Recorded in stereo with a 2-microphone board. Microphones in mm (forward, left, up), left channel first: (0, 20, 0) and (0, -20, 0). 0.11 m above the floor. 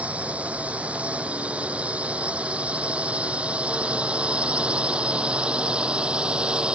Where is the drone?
35° right (ahead or behind); by 6.8 s 25° right (ahead or behind).